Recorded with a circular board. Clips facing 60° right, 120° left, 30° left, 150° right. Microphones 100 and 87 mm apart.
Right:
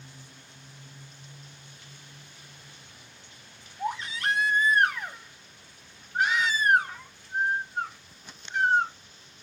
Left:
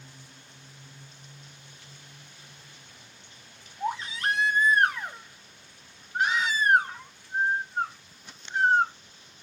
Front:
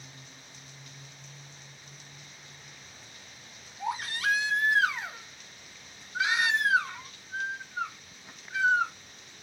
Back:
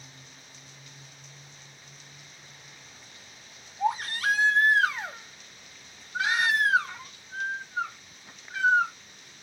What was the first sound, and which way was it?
A baby crying, straight behind.